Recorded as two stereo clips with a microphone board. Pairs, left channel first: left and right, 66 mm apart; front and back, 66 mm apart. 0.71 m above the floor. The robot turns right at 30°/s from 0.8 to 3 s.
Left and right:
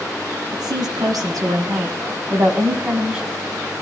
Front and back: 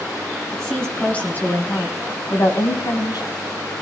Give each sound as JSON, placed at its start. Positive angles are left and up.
{"t": 0.5, "sound": "a woman speaking", "azimuth_deg": -80, "distance_m": 5.5}